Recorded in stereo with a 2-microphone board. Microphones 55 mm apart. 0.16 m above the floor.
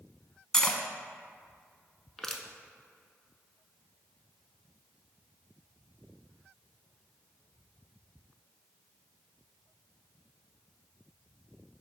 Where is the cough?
I don't hear a cough.